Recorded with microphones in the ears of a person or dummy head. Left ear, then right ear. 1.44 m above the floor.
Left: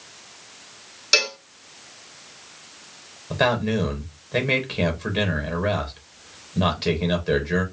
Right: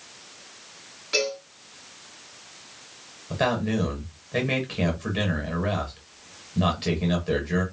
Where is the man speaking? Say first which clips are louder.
Left 4 dB; 25° left (ahead or behind), 1.2 m.